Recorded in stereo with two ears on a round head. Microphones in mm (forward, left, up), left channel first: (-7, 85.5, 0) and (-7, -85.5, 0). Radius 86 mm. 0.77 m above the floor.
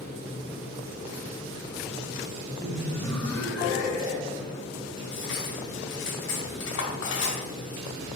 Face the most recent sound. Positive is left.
turn(degrees=70)  # may be behind; listen again after turning